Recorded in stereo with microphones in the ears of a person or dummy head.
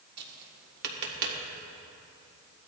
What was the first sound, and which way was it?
Tapping, 60° right (ahead or behind).